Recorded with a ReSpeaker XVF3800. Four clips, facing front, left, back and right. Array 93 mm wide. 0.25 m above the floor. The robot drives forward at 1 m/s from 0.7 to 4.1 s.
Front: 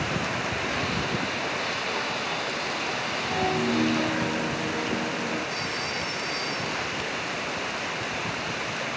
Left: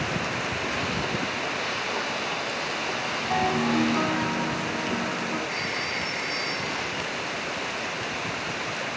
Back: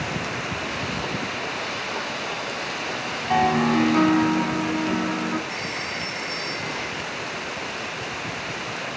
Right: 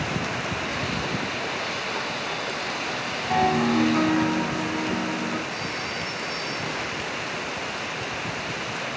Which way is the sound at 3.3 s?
175° right.